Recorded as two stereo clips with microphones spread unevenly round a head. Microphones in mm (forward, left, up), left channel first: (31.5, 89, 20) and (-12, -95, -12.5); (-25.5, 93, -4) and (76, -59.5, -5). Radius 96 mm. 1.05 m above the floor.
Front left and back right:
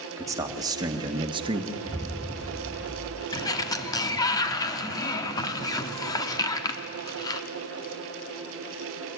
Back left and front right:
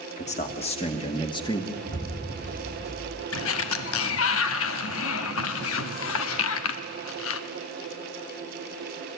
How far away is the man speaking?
About 2 m.